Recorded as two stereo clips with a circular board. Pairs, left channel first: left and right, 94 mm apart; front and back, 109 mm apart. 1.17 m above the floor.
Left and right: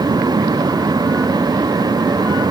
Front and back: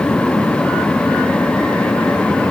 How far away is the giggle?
I don't hear a giggle.